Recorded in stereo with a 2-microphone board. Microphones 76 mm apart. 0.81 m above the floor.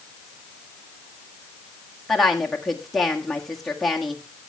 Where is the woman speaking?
Centre (ahead or behind), 1.6 m.